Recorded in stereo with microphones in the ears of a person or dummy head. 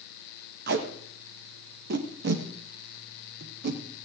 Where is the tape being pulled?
65° right (ahead or behind), 1.5 m.